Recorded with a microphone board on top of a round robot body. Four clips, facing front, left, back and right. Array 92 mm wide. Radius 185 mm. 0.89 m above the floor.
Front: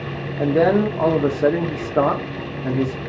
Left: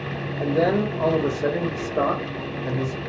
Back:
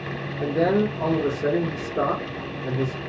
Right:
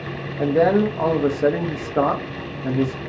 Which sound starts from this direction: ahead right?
A man speaking, at 0.4 s.